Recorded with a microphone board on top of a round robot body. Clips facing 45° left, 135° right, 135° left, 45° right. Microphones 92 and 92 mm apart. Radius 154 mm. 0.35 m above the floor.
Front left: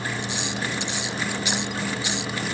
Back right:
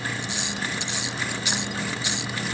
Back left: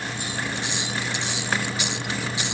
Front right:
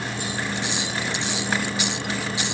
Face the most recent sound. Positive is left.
No sound to turn to.